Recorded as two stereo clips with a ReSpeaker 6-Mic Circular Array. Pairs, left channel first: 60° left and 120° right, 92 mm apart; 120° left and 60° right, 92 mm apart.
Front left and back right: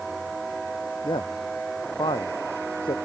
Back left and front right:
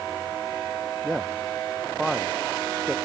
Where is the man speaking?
30° left.